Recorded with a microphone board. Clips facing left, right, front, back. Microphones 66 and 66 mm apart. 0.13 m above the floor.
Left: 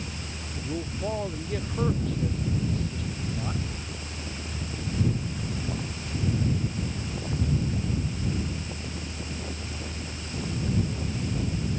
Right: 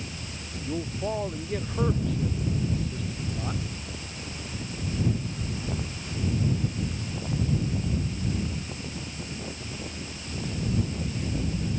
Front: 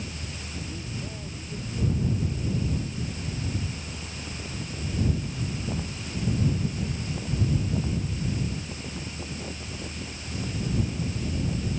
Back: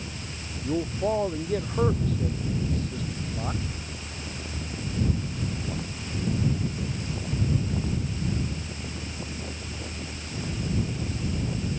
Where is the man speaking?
175° right.